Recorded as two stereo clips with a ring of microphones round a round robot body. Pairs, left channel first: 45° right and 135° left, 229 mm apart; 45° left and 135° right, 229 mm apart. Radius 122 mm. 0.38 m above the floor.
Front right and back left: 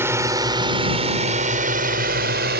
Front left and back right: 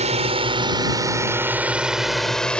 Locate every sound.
0.0 s a drone: 160° right; by 2.6 s 130° left